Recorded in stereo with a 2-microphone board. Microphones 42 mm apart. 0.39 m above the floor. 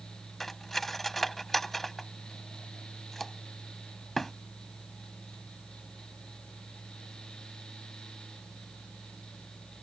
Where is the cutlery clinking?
5° left (ahead or behind).